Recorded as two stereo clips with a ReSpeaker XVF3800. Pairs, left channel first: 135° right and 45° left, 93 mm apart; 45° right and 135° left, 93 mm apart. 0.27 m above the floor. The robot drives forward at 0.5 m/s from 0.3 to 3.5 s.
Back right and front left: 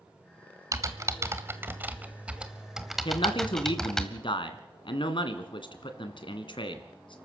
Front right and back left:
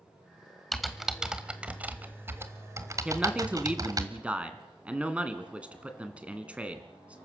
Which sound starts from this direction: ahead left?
Typing on a keyboard, at 0.7 s.